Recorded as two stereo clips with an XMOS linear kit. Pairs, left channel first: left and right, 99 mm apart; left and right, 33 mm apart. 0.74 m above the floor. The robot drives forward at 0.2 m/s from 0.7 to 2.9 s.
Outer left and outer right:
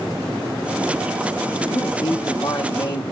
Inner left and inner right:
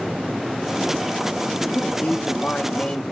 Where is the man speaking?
50° left (ahead or behind), 1.0 m.